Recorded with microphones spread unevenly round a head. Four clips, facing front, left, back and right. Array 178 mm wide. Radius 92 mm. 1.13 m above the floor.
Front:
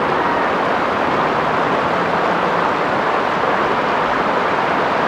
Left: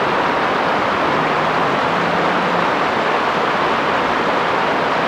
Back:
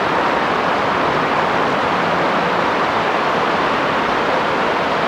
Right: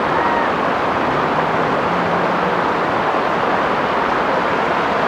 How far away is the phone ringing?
I don't hear a phone ringing.